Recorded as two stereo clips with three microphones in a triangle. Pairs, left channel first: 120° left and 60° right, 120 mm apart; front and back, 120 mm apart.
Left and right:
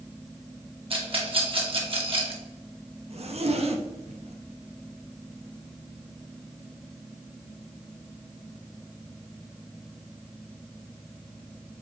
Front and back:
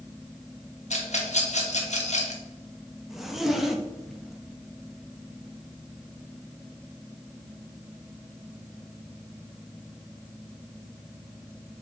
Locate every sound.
0.9 s a rattle: 20° right, 1.6 m
3.1 s a zipper: 90° right, 1.0 m